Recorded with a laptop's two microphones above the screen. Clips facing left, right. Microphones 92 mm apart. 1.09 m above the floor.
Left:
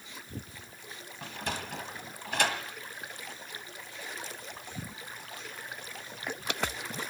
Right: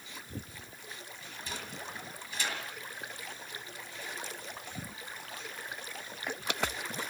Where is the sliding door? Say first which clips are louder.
Left 8 dB; 65° left (ahead or behind), 1.9 m.